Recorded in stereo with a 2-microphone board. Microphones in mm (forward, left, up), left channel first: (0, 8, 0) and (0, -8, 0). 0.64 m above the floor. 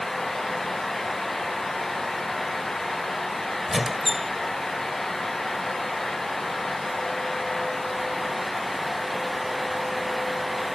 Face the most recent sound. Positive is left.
turn(degrees=0)  # may be behind; listen again after turning